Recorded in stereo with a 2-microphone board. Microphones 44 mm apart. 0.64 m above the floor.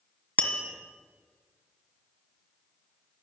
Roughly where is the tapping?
Left.